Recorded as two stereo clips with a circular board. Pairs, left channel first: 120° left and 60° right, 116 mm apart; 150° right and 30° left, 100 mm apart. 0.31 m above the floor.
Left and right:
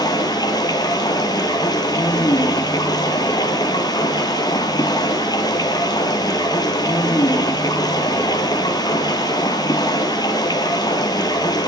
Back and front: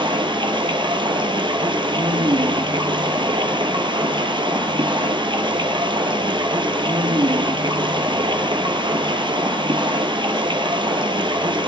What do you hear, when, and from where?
0.0 s running water: 65° left, 1.2 m